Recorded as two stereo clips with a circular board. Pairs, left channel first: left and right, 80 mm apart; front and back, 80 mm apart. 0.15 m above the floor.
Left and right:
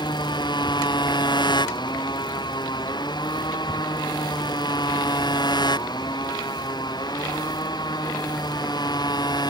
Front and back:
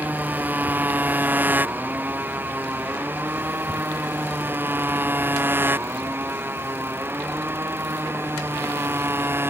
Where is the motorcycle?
110° left; by 9.5 s 120° left.